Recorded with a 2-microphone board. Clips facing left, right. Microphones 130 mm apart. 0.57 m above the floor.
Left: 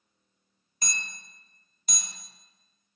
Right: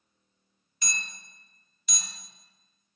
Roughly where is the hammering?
Left.